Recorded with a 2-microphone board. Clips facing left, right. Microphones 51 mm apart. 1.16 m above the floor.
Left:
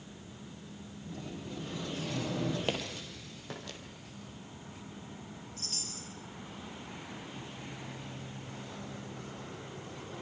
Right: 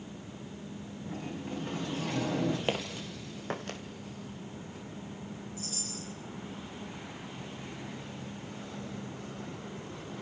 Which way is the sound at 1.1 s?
40° right (ahead or behind).